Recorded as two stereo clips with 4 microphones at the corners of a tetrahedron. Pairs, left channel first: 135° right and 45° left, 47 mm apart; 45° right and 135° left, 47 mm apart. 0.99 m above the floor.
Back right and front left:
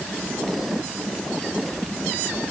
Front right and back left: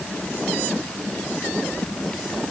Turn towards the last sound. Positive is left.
No sound to turn to.